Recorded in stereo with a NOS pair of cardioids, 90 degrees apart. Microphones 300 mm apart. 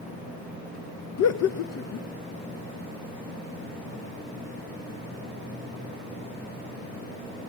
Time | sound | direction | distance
1.2 | laughter | 55° left | 0.8 m